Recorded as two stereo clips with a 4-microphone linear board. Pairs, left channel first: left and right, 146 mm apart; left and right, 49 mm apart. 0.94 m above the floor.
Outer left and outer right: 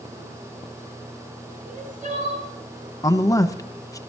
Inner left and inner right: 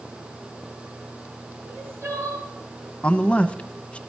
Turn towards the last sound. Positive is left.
turn(degrees=25)  # may be behind; listen again after turning